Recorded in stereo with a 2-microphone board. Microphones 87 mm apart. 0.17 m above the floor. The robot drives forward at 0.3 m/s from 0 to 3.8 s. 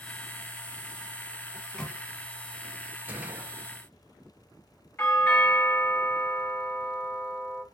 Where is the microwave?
10° left (ahead or behind), 0.9 m.